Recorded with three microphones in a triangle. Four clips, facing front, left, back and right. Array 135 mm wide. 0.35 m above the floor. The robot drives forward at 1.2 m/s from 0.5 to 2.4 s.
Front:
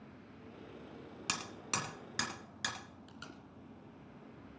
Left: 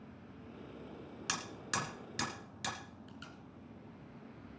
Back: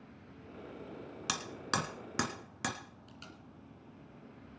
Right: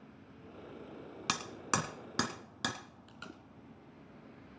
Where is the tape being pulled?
75° right, 1.9 m.